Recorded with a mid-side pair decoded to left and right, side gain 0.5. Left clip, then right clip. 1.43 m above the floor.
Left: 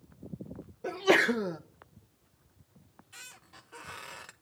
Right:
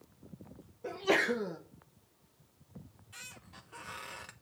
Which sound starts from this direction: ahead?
A squeak, at 2.8 s.